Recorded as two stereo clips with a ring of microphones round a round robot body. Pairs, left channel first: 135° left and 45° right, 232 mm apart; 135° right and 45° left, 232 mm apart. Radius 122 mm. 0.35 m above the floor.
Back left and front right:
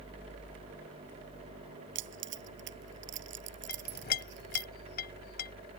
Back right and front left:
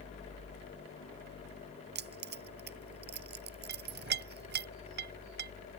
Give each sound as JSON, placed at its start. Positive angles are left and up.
{"t": 1.9, "sound": "keys jangling", "azimuth_deg": -5}
{"t": 3.7, "sound": "a clink", "azimuth_deg": 85}